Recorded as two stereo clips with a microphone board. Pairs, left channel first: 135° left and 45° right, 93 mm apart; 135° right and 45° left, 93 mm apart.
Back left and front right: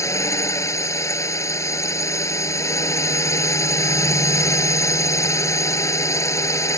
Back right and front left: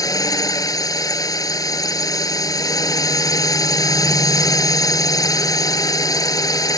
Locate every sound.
0.0 s a drone: 175° right